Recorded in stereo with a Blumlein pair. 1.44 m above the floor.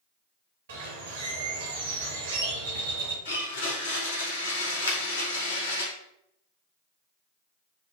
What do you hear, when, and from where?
0.7 s a bird: 60° right, 1.0 m
3.2 s a blender: 65° left, 1.3 m
4.9 s a finger snap: 70° left, 0.8 m